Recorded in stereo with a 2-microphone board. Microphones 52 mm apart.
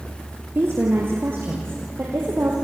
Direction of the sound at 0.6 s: 45° right (ahead or behind).